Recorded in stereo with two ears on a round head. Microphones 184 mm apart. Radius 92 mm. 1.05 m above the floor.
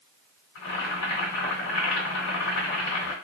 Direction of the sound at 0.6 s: 65° left (ahead or behind).